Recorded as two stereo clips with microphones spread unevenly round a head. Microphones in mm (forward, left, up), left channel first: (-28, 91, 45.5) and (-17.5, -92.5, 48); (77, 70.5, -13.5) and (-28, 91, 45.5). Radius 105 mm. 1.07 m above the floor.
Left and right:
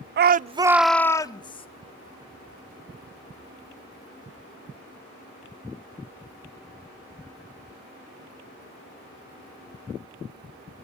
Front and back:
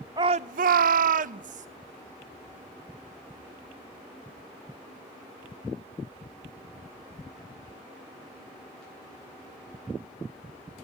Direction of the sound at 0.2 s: 110° right.